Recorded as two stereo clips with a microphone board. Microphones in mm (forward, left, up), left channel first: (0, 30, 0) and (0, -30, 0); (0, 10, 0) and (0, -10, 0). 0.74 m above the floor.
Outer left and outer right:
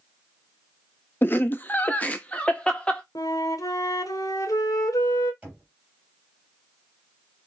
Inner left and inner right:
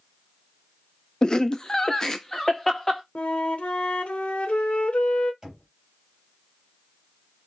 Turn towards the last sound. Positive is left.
turn(degrees=-20)  # may be behind; listen again after turning